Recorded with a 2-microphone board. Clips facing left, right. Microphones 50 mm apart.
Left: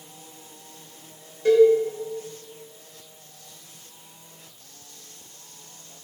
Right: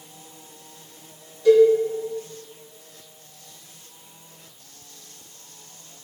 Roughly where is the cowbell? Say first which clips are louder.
Right 2 dB; left.